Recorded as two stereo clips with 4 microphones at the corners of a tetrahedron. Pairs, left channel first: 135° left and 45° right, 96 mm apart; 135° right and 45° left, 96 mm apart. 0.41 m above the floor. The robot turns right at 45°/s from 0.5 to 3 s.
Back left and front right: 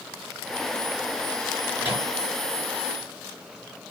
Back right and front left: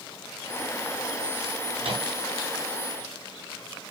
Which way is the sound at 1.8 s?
25° left.